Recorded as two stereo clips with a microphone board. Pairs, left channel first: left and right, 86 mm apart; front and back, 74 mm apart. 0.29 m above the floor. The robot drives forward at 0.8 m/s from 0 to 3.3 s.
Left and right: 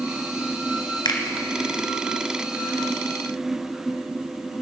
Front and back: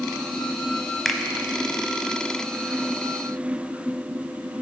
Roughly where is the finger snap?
Left.